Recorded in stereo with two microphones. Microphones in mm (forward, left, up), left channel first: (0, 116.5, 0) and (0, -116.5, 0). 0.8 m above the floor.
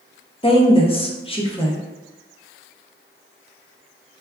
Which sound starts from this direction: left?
A woman speaking, at 0.4 s.